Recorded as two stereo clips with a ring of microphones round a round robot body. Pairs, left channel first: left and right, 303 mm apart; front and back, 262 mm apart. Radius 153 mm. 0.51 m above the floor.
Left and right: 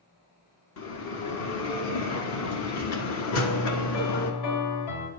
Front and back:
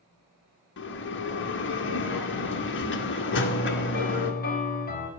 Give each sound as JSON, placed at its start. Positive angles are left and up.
{"t": 0.8, "sound": "a bell", "azimuth_deg": 50, "distance_m": 1.4}
{"t": 3.3, "sound": "a piano", "azimuth_deg": 55, "distance_m": 2.5}